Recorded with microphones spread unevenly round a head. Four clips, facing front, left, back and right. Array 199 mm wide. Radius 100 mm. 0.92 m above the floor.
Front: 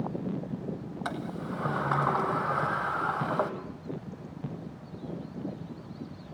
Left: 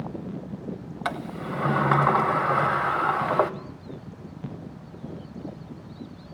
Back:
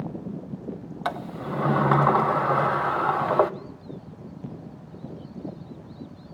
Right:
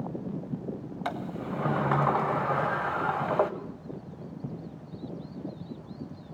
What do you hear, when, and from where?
1.1 s a sliding door: 160° left, 0.9 m